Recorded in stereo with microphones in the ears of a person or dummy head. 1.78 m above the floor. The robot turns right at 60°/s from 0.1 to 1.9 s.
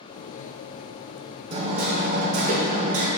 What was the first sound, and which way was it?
Hammering, 25° right (ahead or behind).